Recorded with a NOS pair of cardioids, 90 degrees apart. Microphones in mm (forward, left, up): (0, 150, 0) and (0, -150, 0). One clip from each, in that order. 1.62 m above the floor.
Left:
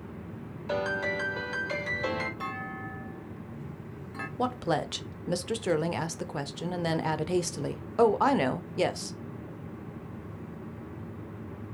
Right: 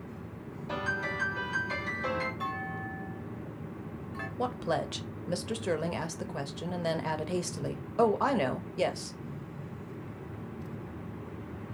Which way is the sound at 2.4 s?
20° left.